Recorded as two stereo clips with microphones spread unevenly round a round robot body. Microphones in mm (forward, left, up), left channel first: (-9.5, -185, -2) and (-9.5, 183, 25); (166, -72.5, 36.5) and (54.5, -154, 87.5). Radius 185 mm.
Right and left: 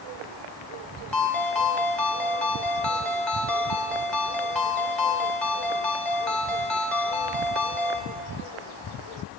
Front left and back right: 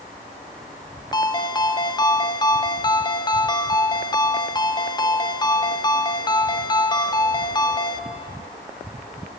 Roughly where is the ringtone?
Ahead.